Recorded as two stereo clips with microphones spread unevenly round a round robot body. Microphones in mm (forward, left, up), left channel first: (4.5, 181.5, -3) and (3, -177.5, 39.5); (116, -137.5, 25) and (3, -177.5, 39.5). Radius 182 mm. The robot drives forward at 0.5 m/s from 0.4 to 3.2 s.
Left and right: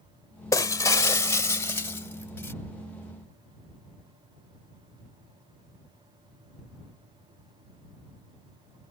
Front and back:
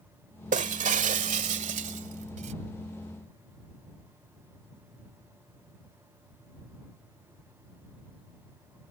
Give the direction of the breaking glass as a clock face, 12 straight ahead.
6 o'clock.